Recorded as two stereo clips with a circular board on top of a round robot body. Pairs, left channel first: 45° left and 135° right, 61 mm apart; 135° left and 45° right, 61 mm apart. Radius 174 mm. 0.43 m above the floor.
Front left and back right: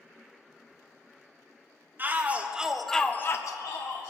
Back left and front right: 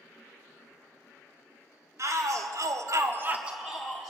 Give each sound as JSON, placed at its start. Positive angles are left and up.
{"t": 2.0, "sound": "a shout", "azimuth_deg": -75, "distance_m": 2.0}